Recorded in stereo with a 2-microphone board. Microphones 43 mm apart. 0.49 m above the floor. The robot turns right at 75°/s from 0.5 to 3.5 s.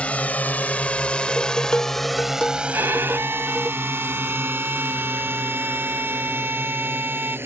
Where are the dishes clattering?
35° left; by 3.7 s 155° right.